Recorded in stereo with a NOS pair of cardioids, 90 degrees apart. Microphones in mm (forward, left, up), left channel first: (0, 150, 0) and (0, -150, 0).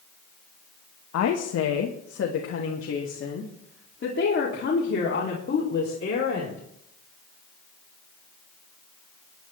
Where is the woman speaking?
60° left, 1.4 m; by 6.6 s 35° left, 4 m.